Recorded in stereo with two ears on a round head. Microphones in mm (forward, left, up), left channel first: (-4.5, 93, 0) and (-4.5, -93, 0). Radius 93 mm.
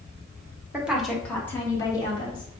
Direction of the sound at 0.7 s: 10° right (ahead or behind).